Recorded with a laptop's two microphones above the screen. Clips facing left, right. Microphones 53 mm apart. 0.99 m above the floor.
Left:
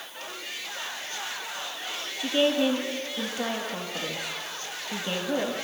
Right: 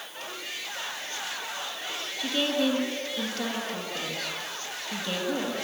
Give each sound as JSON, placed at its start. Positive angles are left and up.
{"t": 2.2, "sound": "a woman speaking", "side_deg": 15, "distance_m": 1.7}